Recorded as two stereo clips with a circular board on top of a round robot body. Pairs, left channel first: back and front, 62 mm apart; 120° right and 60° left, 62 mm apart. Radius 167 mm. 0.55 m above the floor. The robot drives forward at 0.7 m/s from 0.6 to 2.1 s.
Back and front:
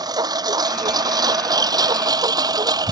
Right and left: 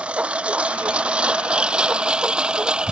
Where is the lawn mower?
15° right.